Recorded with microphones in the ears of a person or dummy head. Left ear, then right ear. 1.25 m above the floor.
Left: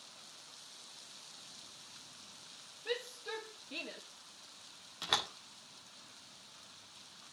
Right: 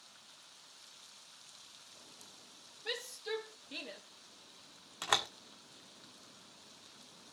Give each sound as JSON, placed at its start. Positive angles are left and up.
{"t": 2.9, "sound": "a shout", "side_deg": -40, "distance_m": 2.5}
{"t": 5.0, "sound": "a door slam", "side_deg": -35, "distance_m": 1.7}